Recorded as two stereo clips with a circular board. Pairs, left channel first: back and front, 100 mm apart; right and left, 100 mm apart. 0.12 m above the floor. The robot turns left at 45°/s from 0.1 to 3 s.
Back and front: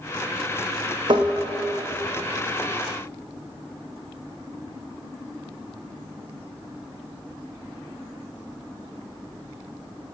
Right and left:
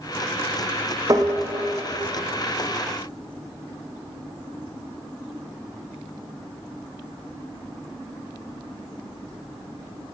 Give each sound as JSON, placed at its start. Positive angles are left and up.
{"t": 1.1, "sound": "tapping", "azimuth_deg": 35, "distance_m": 2.0}